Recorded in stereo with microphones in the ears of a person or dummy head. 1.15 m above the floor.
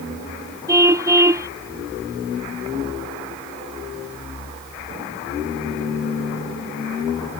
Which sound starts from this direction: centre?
A car horn, at 0.7 s.